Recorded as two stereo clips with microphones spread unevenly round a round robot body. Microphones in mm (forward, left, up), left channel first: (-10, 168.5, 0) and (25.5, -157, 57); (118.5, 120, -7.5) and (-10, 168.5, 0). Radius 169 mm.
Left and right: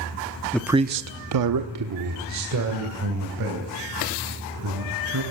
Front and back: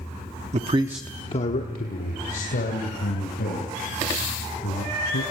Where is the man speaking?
170° left, 0.8 m; by 5.2 s 35° right, 6 m.